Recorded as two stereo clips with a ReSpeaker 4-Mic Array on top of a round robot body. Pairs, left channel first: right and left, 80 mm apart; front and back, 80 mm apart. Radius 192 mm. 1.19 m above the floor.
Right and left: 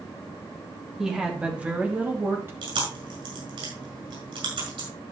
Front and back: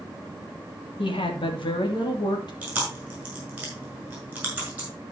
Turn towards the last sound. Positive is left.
turn(degrees=105)